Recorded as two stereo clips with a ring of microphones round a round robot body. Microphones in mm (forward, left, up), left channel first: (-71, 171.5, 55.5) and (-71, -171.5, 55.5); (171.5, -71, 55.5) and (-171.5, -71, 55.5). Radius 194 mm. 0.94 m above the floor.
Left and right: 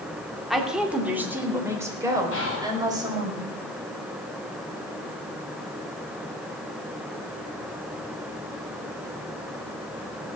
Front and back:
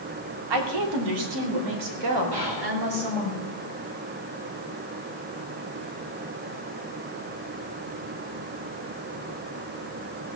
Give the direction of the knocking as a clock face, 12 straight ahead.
I don't hear knocking.